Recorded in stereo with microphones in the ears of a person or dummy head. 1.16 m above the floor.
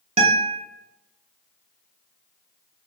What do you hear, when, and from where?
0.2 s a guitar: 40° right (ahead or behind), 1.0 m